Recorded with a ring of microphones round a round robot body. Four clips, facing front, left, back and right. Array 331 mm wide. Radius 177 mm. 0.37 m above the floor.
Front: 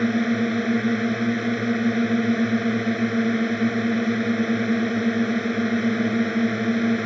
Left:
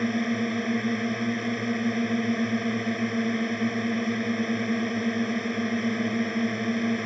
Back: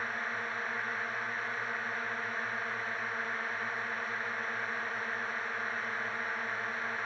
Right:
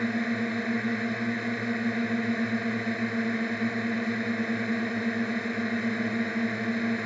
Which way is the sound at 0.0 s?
5° left.